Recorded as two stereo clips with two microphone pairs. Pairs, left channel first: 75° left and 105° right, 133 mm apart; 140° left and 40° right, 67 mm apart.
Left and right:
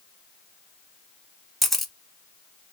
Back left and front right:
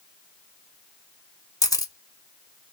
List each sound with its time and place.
1.6 s a camera shutter: 165° left, 0.8 m